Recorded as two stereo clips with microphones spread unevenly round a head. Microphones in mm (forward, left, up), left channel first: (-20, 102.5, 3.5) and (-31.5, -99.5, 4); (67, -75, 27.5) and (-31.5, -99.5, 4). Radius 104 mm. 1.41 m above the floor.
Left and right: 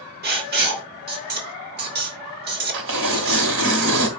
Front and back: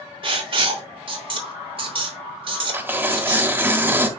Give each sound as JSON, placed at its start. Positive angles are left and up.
{"t": 0.2, "sound": "writing", "azimuth_deg": -135, "distance_m": 3.0}
{"t": 2.7, "sound": "tearing paper", "azimuth_deg": -90, "distance_m": 2.0}